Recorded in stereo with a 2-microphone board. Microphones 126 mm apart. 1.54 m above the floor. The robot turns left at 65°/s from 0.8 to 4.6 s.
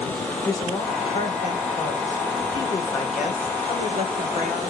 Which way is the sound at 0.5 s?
150° left.